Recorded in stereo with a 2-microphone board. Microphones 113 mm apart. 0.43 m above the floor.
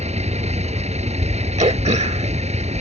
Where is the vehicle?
70° right (ahead or behind).